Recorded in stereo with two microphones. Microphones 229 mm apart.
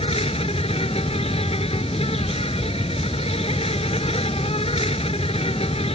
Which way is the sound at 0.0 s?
30° left (ahead or behind).